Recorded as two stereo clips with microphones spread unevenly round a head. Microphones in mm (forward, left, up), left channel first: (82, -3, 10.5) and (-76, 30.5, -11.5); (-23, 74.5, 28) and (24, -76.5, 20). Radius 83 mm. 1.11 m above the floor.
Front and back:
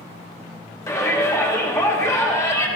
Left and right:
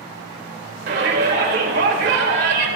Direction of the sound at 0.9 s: 90° right.